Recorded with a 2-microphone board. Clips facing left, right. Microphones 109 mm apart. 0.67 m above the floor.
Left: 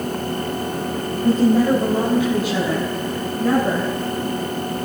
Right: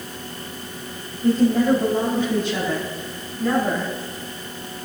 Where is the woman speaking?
10° left (ahead or behind), 4 m.